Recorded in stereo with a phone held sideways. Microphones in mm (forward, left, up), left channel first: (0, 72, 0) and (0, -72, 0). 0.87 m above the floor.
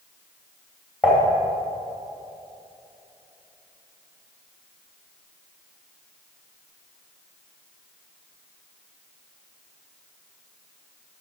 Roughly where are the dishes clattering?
Centre.